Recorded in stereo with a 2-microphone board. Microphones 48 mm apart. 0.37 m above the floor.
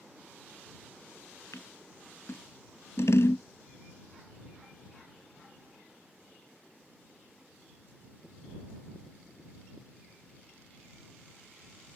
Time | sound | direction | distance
1.5 | scissors | 70° left (ahead or behind) | ?